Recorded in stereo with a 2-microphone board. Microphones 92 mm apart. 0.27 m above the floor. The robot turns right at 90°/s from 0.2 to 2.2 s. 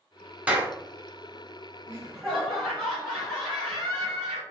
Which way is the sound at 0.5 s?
15° right (ahead or behind).